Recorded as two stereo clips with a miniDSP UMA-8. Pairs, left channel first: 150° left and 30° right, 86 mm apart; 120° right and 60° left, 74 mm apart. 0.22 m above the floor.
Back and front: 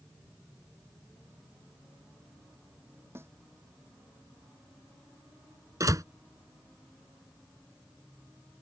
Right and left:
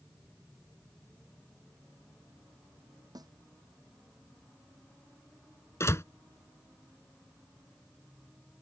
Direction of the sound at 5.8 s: 75° right.